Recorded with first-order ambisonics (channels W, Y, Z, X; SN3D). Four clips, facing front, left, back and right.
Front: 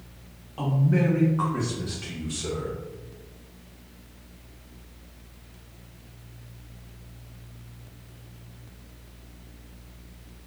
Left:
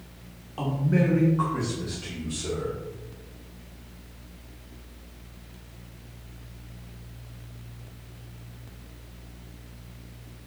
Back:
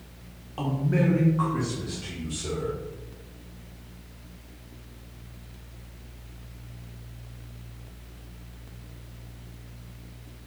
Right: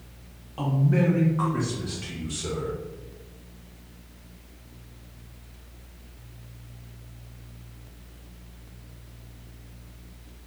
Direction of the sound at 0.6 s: 160° left.